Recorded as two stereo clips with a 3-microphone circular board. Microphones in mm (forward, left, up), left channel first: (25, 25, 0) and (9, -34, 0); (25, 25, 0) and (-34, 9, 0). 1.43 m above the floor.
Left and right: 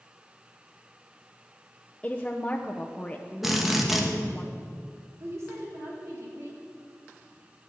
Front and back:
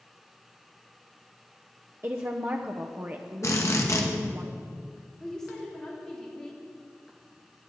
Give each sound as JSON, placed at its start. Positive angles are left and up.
{"t": 2.0, "sound": "a woman speaking", "azimuth_deg": 145, "distance_m": 0.8}
{"t": 3.4, "sound": "a drill", "azimuth_deg": -20, "distance_m": 1.6}
{"t": 5.2, "sound": "a woman speaking", "azimuth_deg": -65, "distance_m": 2.5}